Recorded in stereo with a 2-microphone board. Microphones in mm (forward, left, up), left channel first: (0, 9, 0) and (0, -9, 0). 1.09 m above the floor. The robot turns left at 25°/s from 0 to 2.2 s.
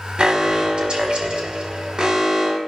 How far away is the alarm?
About 3.5 m.